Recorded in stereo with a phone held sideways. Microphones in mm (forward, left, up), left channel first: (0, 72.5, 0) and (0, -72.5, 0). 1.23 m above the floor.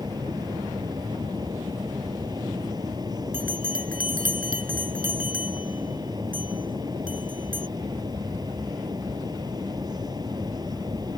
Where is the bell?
80° right.